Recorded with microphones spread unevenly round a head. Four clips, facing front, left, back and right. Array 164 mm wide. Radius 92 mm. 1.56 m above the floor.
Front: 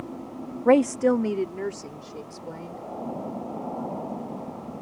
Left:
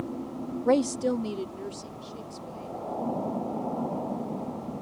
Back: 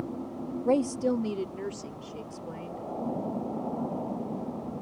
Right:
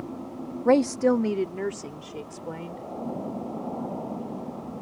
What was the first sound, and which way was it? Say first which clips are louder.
A woman speaking: right 4 dB, front 7 dB; 20° right.